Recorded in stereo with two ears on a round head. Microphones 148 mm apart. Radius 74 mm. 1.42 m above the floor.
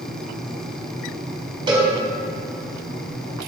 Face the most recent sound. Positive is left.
turn(degrees=-30)  # may be behind; listen again after turning